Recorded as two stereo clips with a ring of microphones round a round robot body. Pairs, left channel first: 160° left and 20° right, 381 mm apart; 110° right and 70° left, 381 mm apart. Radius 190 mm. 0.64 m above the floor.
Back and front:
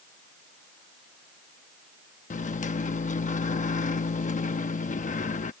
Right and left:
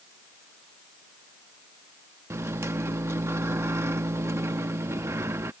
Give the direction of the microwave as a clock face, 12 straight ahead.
7 o'clock.